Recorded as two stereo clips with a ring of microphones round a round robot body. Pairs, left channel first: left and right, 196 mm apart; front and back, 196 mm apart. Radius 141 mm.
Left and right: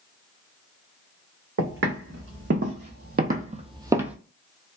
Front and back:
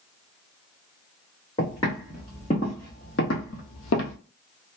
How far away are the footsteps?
About 1.6 m.